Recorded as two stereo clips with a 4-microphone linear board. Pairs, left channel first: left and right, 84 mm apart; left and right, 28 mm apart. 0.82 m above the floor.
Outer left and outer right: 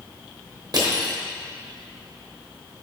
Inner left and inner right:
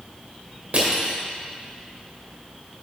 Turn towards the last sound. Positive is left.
turn(degrees=-55)  # may be behind; listen again after turning